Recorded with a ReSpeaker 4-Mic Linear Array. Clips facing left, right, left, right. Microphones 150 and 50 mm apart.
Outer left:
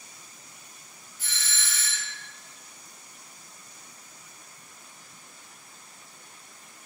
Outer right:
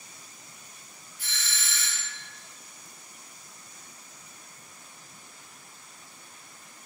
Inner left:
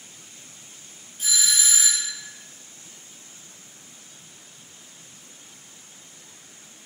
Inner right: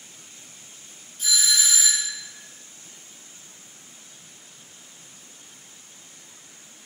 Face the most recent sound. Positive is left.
turn(degrees=15)  # may be behind; listen again after turning